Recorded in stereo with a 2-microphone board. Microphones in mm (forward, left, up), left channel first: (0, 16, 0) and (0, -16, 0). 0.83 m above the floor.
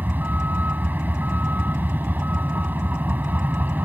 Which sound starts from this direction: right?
A vehicle, at 0.0 s.